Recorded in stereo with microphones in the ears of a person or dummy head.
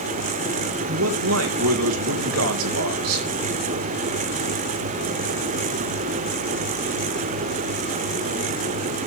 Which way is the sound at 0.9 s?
80° right.